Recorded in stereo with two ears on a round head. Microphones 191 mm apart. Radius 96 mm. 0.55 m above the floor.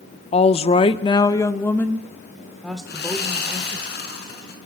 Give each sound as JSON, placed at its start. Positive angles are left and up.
{"t": 0.3, "sound": "a woman speaking", "side_deg": 30, "distance_m": 0.7}
{"t": 2.9, "sound": "sawing", "side_deg": 50, "distance_m": 5.0}